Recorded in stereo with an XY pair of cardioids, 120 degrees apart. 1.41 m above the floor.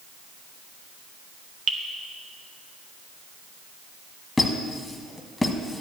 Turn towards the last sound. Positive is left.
turn(degrees=10)